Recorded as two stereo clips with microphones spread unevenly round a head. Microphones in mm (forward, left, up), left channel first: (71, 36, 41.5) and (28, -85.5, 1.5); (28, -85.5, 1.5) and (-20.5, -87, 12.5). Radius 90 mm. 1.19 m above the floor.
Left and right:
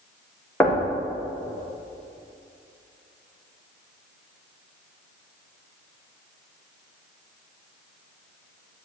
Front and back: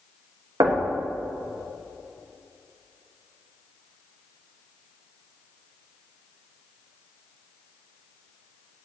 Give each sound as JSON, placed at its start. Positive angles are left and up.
{"t": 0.6, "sound": "knocking", "azimuth_deg": 155, "distance_m": 0.9}